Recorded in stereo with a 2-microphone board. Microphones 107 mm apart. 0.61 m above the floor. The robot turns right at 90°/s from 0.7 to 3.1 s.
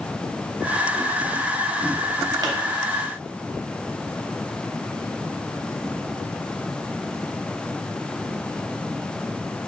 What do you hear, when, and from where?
2.4 s a pop: 40° right (ahead or behind), 0.7 m